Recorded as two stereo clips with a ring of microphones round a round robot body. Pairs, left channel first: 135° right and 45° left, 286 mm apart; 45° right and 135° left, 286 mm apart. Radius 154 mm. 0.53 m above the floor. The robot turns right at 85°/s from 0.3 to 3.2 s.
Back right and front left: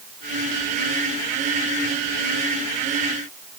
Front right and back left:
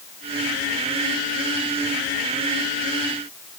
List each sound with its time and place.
Only background noise.